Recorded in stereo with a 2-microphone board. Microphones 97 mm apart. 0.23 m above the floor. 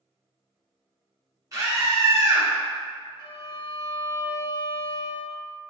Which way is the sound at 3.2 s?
55° left (ahead or behind).